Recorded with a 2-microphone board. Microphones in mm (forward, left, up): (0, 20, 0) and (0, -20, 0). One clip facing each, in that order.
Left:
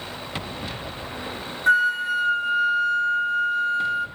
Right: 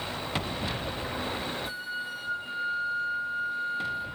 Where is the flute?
70° left (ahead or behind), 0.6 m.